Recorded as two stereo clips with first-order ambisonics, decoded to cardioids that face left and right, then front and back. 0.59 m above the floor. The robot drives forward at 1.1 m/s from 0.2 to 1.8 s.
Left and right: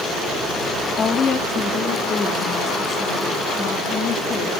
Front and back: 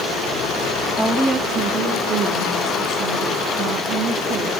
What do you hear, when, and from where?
1.0 s a woman speaking: 80° left, 1.0 m; by 4.6 s 150° left, 1.3 m